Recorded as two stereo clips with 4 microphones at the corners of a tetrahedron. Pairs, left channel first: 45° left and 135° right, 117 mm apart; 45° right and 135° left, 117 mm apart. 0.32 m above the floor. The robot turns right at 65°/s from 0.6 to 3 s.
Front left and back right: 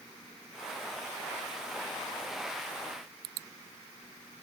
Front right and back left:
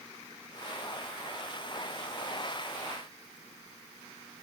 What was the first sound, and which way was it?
Only background noise.